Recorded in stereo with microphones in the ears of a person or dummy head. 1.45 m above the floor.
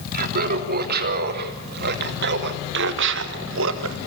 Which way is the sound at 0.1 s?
55° right (ahead or behind).